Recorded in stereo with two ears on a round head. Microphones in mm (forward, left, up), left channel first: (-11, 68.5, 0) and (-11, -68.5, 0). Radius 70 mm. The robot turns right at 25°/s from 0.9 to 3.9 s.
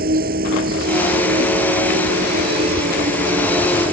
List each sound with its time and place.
0.0 s an insect: 110° right; by 3.9 s 35° right